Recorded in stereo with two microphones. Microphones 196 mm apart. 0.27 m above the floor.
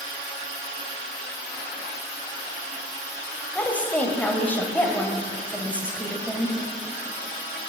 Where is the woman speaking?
10° left (ahead or behind), 1.0 m.